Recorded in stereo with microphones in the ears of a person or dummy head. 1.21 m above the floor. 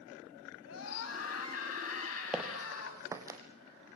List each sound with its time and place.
0.7 s a scream: 85° left, 8.5 m; by 3.0 s 80° left, 9.5 m
2.3 s footsteps: 5° right (ahead or behind), 2.5 m; by 3.4 s 20° right (ahead or behind), 3 m